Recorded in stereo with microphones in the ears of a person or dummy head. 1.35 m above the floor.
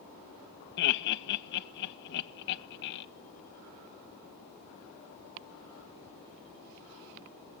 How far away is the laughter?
About 1.3 m.